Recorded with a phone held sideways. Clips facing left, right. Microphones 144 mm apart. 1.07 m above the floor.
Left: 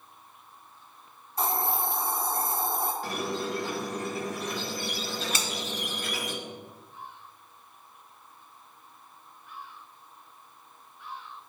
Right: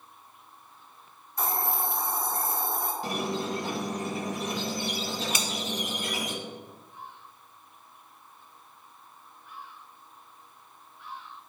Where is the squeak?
15° right (ahead or behind), 1.0 m.